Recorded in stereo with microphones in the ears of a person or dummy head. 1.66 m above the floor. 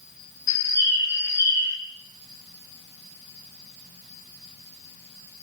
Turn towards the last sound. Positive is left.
turn(degrees=80)